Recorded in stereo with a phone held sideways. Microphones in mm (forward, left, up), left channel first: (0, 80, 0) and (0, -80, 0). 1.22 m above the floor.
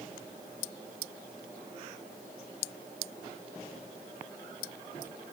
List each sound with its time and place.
Only background noise.